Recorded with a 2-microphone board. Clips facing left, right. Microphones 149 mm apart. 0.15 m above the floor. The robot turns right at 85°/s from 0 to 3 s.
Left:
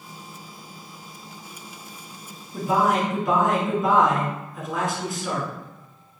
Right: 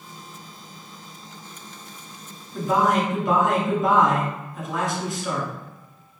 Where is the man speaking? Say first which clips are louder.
Right 1 dB; 140° left, 1.7 m; by 5.5 s straight behind, 1.7 m.